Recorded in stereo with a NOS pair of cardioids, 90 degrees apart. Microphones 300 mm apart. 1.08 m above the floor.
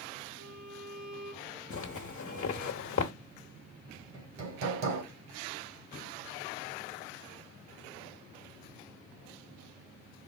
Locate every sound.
0.4 s a violin: 70° right, 2.5 m
1.7 s a zipper: 50° left, 1.1 m
4.1 s hammering: 65° right, 1.9 m